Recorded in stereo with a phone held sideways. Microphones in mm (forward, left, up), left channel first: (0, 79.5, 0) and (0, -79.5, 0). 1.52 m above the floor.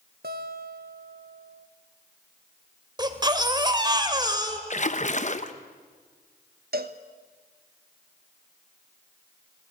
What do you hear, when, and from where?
0.2 s a guitar: 80° right, 1.8 m
3.0 s a baby crying: 25° right (ahead or behind), 2.0 m
4.7 s a splash: 50° left (ahead or behind), 1.0 m
6.7 s a cowbell: 75° right (ahead or behind), 1.2 m